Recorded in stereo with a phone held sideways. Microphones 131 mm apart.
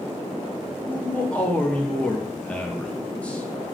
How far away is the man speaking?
About 0.6 m.